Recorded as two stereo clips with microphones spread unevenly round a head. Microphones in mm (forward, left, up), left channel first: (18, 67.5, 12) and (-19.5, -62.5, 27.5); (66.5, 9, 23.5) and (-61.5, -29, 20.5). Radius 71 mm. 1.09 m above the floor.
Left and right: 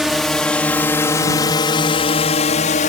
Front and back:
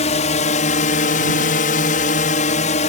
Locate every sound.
0.0 s a drone: 15° right; by 2.9 s 50° left